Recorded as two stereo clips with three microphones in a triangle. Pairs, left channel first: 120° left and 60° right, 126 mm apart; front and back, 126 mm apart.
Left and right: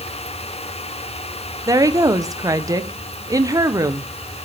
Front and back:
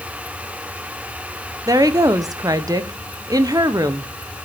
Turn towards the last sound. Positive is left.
turn(degrees=-120)